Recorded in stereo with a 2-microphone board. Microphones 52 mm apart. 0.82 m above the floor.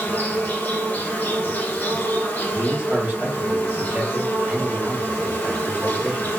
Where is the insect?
40° left (ahead or behind), 0.9 m.